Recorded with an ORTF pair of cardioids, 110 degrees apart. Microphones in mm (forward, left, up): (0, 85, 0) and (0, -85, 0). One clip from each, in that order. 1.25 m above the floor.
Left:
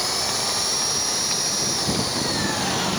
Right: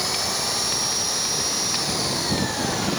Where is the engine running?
10° left.